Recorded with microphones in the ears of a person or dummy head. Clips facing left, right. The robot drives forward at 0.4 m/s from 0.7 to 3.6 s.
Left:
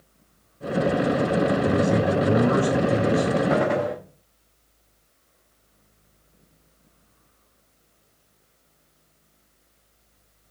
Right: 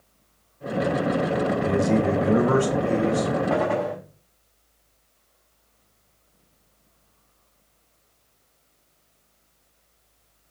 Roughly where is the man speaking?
Right.